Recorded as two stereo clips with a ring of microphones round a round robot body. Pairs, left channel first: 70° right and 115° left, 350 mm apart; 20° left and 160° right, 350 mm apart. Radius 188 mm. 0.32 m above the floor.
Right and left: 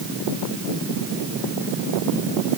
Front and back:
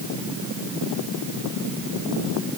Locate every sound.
Only background noise.